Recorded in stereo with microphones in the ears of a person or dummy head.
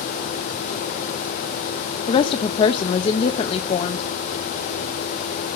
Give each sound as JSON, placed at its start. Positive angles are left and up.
{"t": 2.1, "sound": "a woman speaking", "side_deg": 35, "distance_m": 0.7}